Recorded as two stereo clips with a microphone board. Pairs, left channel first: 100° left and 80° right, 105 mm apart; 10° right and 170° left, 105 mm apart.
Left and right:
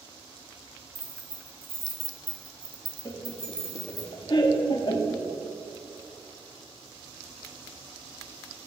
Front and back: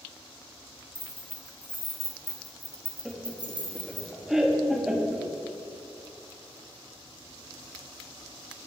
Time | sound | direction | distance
0.9 | keys jangling | 35° right | 1.4 m
3.0 | laughter | 85° left | 0.8 m